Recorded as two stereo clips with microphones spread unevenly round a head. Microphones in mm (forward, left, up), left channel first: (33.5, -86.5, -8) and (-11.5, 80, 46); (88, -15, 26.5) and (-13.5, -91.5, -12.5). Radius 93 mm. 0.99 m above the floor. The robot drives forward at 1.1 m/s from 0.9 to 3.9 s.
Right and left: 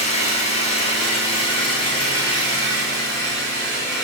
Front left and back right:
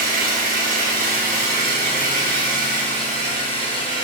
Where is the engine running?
135° right, 4.5 m; by 4.0 s 155° right, 7.5 m.